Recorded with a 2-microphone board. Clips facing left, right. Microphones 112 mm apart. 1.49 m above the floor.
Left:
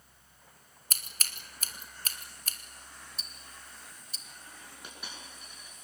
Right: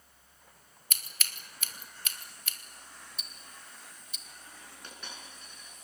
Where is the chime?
I don't hear a chime.